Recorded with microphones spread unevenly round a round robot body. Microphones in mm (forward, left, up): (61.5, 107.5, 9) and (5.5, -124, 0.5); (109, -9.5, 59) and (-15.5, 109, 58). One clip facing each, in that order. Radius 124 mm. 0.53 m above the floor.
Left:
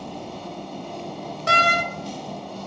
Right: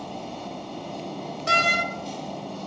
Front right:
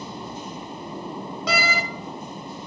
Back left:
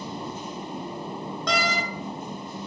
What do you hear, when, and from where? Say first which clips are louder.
1.5 s a door slam: left 4 dB, front right 1 dB; 40° left, 1.5 m